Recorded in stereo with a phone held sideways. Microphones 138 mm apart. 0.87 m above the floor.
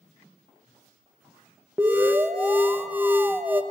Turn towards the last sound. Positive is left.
turn(degrees=-15)  # may be behind; listen again after turning